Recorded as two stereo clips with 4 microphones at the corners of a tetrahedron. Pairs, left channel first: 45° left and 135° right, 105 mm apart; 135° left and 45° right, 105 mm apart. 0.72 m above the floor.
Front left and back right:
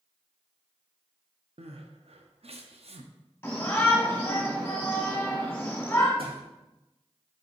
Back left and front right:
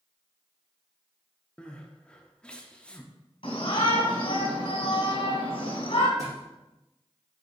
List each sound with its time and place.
1.6 s crying: 145° right, 0.6 m
3.4 s a shout: 115° left, 2.5 m
6.2 s a thud: 105° right, 3 m